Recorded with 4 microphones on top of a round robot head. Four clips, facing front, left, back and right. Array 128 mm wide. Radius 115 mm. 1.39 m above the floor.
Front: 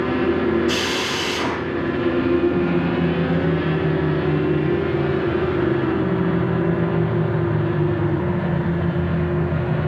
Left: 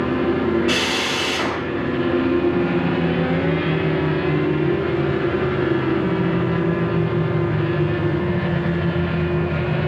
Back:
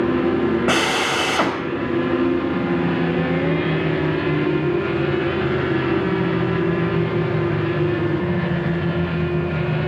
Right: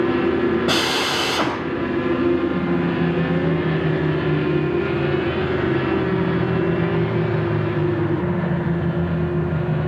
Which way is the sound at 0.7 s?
155° right.